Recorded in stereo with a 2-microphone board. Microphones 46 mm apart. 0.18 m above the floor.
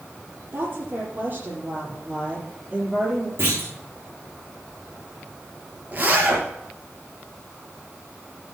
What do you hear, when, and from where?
0.5 s a woman speaking: 40° right (ahead or behind), 6 m; by 3.3 s 20° right (ahead or behind), 5.5 m
3.4 s a clunk: 50° right (ahead or behind), 5 m
5.9 s a zipper: 35° right (ahead or behind), 4.5 m